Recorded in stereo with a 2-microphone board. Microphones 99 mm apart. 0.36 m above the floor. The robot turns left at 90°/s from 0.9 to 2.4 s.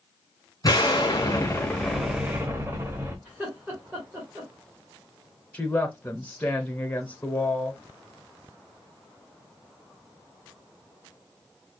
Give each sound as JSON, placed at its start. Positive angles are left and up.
{"t": 0.6, "sound": "an explosion", "azimuth_deg": 100, "distance_m": 0.9}
{"t": 3.2, "sound": "laughter", "side_deg": -15, "distance_m": 1.6}
{"t": 5.5, "sound": "a woman speaking", "side_deg": 15, "distance_m": 1.0}